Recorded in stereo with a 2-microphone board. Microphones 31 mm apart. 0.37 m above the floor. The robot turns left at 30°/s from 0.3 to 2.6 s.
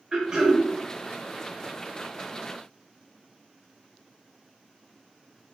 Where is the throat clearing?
25° right (ahead or behind), 0.8 m; by 0.6 s 15° right (ahead or behind), 0.8 m.